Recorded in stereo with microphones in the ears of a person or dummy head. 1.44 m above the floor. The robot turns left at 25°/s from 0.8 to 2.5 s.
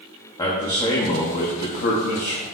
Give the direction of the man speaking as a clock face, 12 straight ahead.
7 o'clock.